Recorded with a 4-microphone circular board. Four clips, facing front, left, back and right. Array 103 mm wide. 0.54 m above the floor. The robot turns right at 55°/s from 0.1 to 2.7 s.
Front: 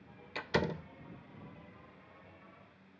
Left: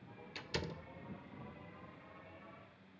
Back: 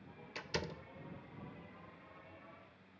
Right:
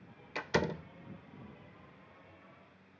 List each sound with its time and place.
0.3 s a door slam: 65° right; by 0.9 s 35° right